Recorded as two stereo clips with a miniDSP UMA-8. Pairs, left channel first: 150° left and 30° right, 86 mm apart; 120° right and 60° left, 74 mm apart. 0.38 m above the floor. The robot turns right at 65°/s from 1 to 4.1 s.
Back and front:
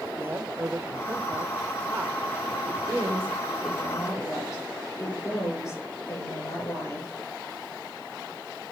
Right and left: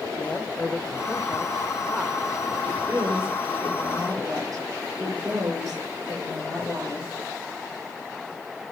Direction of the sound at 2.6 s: 5° left.